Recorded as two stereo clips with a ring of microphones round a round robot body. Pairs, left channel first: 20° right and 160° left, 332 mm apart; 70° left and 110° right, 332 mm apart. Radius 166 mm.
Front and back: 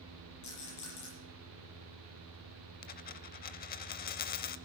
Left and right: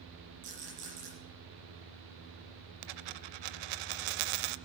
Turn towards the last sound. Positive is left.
turn(degrees=-90)